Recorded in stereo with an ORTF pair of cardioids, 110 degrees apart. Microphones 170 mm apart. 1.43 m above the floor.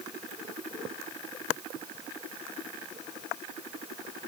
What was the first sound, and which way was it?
Only background noise.